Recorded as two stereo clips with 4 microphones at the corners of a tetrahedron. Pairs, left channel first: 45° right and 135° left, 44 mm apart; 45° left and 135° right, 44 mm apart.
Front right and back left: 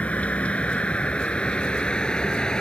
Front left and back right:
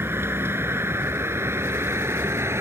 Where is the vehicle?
105° right; by 2.6 s 115° right.